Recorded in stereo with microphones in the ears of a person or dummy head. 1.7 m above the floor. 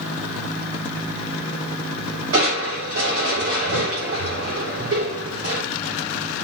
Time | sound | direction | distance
2.3 | crushing | 85° right | 7 m